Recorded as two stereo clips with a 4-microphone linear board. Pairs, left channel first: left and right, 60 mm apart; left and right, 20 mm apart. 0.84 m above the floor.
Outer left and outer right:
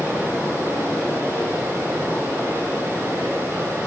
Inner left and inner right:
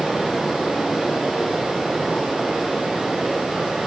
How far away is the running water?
About 4.5 m.